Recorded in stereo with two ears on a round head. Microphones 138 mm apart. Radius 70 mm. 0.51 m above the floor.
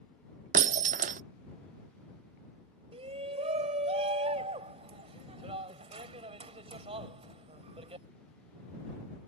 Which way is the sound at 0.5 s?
55° right (ahead or behind).